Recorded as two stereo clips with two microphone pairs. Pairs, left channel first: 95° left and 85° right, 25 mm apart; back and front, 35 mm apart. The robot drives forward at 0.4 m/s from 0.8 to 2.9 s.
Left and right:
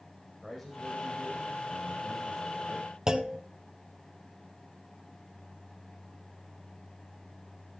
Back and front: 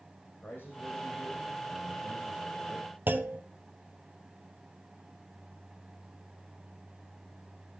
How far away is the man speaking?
About 3.5 m.